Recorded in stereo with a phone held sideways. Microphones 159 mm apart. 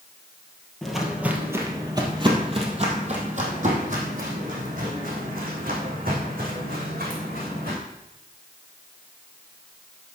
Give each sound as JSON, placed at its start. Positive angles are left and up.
{"t": 0.8, "sound": "footsteps", "side_deg": 0, "distance_m": 1.7}